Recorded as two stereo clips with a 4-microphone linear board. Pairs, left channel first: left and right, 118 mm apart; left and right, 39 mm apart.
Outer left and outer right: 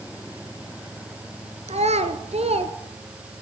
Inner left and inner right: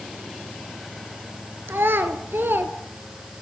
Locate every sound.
1.7 s a child speaking: 70° right (ahead or behind), 1.5 m; by 2.7 s 60° right (ahead or behind), 1.7 m